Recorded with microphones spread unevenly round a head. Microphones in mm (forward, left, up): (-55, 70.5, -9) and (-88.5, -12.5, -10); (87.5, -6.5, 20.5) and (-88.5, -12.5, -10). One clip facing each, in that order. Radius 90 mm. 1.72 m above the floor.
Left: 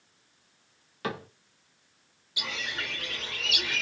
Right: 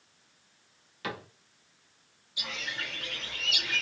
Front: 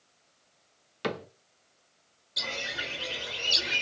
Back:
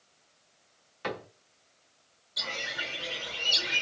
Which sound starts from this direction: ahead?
A cupboard door, at 1.0 s.